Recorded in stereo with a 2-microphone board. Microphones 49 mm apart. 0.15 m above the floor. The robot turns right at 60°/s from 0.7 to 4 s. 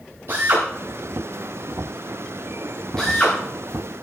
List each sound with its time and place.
0.3 s a drill: 50° right (ahead or behind), 9 m; by 3.4 s 30° left (ahead or behind), 9 m